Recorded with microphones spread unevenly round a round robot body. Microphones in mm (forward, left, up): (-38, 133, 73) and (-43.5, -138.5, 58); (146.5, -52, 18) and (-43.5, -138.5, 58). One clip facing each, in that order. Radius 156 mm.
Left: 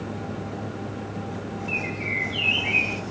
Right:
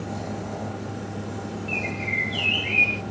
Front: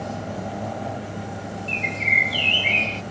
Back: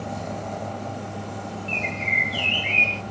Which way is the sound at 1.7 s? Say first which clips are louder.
Even, even; 5° right.